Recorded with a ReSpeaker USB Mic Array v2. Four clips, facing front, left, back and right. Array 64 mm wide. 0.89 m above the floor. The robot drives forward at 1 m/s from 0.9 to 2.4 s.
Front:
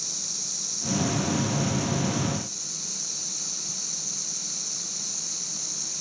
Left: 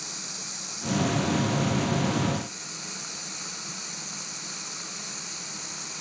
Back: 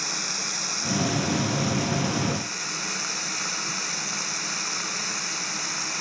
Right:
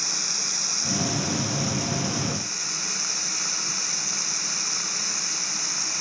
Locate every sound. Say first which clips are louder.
0.0 s running water: right 6 dB, back 12 dB; 155° right; by 6.0 s 160° right